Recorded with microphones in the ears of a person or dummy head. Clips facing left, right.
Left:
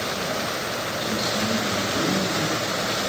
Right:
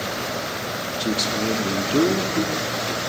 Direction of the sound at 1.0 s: 70° right (ahead or behind).